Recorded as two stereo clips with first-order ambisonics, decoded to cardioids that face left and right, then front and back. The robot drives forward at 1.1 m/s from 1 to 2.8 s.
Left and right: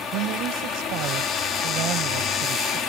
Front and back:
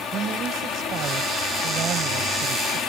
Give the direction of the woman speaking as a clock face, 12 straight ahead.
4 o'clock.